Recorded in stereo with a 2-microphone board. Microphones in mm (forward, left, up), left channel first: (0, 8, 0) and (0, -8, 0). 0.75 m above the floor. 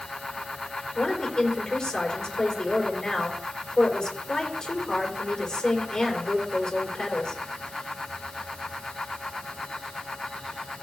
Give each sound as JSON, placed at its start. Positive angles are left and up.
{"t": 0.9, "sound": "a woman speaking", "side_deg": 50, "distance_m": 3.5}